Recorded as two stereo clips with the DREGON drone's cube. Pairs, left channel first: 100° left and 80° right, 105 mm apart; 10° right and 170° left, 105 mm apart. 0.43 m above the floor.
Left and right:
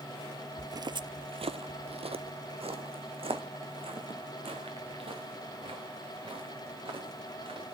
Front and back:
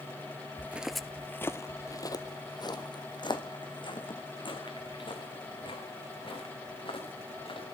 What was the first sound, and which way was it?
Footsteps, 135° right.